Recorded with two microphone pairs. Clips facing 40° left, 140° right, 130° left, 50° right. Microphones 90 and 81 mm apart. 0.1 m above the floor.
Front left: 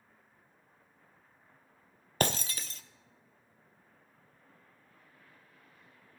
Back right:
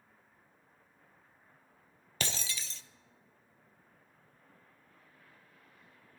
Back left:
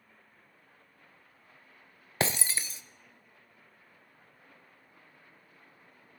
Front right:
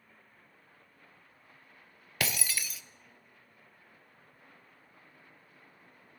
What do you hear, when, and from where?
2.2 s breaking glass: 80° left, 0.6 m